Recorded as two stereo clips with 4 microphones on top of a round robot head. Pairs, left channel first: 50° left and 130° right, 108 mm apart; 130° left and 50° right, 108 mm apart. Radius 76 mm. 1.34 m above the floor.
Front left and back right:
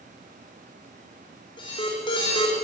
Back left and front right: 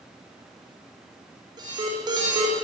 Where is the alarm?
5° left, 6 m.